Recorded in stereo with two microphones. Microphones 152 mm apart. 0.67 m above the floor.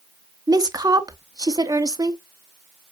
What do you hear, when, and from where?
0.5 s a woman speaking: 25° right (ahead or behind), 0.8 m